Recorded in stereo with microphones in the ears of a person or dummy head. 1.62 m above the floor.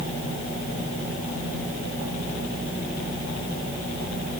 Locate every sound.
Only background noise.